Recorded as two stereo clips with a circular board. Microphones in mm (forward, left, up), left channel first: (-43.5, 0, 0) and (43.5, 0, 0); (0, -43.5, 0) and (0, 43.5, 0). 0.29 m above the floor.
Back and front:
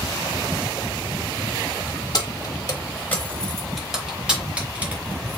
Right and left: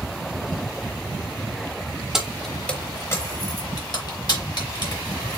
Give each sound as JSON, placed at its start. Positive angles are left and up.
{"t": 2.1, "sound": "keys jangling", "azimuth_deg": 170, "distance_m": 1.0}